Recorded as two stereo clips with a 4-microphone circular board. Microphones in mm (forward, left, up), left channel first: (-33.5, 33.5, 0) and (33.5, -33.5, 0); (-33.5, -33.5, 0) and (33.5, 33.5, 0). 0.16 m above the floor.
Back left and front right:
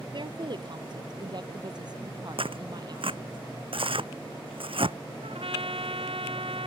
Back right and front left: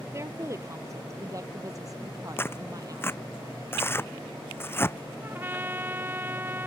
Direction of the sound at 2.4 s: 70° right.